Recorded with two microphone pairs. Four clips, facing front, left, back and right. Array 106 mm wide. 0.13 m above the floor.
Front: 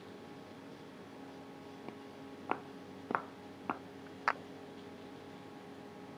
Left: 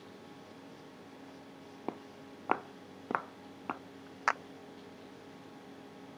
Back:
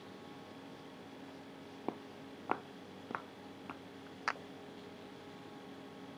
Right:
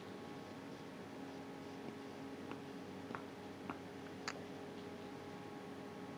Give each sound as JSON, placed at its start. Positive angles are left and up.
{"t": 1.9, "sound": "footsteps", "azimuth_deg": 125}
{"t": 4.3, "sound": "a clap", "azimuth_deg": 65}